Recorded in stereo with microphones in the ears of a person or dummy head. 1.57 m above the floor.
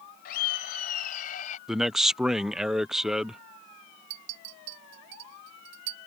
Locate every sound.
0.2 s laughter: 55° left (ahead or behind); by 1.6 s 45° left (ahead or behind)
1.7 s a man speaking: 5° right (ahead or behind)
4.1 s a clink: 65° right (ahead or behind)